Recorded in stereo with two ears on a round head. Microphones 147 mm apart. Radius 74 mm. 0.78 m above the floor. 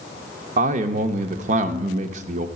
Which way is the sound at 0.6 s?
45° right (ahead or behind).